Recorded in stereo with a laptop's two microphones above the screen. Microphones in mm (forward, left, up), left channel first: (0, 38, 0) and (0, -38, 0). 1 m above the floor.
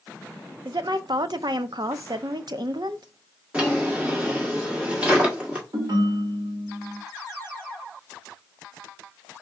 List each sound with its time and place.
0.7 s a woman speaking: 65° right (ahead or behind), 0.5 m
3.5 s a drawer: 15° right (ahead or behind), 1.7 m
5.7 s a ringtone: 60° right (ahead or behind), 1.5 m